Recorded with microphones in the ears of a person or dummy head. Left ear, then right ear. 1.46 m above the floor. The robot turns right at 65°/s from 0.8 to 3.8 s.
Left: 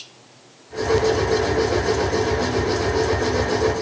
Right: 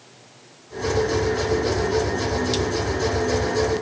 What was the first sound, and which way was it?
Only background noise.